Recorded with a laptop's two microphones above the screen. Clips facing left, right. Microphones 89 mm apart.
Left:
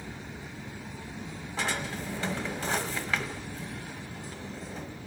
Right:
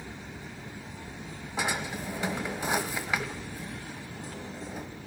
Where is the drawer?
15° right (ahead or behind), 1.3 m.